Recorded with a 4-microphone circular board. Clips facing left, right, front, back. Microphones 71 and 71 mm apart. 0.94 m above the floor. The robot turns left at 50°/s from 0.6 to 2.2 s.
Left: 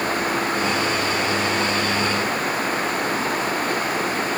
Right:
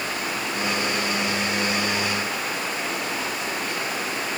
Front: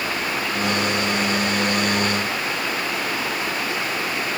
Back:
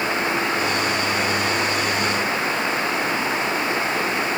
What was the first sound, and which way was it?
Only background noise.